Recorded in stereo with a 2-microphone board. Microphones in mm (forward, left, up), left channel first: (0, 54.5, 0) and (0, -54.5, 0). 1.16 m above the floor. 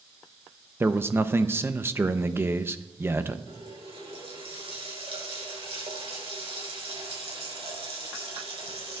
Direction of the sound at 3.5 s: 65° right (ahead or behind).